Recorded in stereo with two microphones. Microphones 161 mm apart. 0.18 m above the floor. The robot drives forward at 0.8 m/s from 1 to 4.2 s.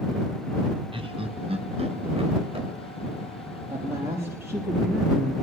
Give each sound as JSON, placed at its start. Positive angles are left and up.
{"t": 0.9, "sound": "laughter", "side_deg": -35, "distance_m": 1.5}
{"t": 3.7, "sound": "a woman speaking", "side_deg": -15, "distance_m": 4.5}